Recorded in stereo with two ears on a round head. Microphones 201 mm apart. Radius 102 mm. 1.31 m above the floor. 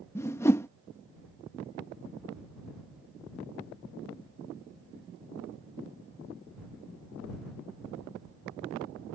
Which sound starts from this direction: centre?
A whoosh, at 0.1 s.